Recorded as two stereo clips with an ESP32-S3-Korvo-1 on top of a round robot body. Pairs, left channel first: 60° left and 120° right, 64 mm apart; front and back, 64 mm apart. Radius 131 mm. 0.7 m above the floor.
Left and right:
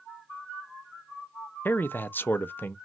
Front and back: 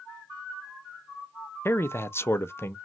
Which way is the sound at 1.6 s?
20° left.